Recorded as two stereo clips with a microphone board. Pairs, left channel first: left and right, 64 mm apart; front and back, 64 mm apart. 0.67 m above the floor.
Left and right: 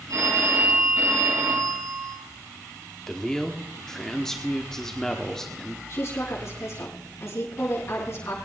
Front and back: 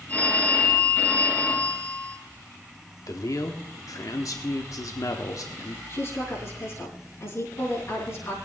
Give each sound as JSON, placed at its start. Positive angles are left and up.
{"t": 0.1, "sound": "a phone ringing", "azimuth_deg": -65, "distance_m": 4.0}
{"t": 3.1, "sound": "a man speaking", "azimuth_deg": 10, "distance_m": 1.1}
{"t": 5.9, "sound": "a woman speaking", "azimuth_deg": 45, "distance_m": 7.0}